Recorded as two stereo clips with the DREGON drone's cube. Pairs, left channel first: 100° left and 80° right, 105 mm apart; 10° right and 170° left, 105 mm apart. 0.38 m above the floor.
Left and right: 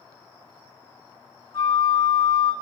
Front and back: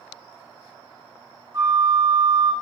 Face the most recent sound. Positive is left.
turn(degrees=130)